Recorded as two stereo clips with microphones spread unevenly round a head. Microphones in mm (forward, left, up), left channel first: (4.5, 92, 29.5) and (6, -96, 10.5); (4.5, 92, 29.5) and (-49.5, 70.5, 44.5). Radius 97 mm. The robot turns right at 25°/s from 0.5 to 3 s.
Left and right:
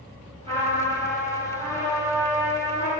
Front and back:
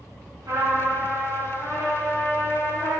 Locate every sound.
0.5 s a trumpet: 155° right, 2.5 m; by 2.9 s 95° right, 2.5 m